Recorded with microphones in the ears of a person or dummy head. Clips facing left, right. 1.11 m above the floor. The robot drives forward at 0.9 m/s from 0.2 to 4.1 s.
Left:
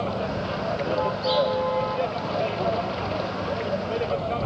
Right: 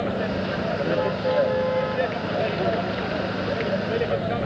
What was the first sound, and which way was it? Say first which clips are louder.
A vehicle: right 2 dB; 20° right (ahead or behind).